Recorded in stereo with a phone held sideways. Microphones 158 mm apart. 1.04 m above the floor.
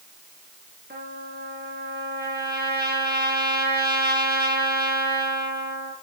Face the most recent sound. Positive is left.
turn(degrees=-80)